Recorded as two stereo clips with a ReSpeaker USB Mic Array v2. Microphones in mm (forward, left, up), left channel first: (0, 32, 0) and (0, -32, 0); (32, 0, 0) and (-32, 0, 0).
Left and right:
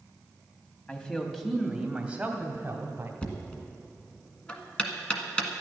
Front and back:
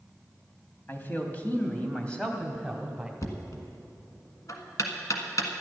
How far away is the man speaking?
About 1.3 m.